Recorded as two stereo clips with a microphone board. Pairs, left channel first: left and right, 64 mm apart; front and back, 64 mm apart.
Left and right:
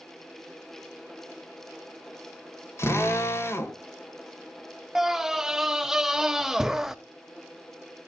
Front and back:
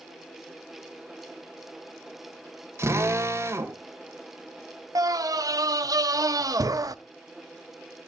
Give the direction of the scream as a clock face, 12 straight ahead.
6 o'clock.